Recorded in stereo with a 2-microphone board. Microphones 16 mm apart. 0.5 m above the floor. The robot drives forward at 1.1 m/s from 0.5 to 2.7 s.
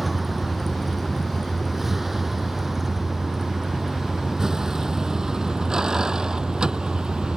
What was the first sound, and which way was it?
A vehicle, 15° right (ahead or behind).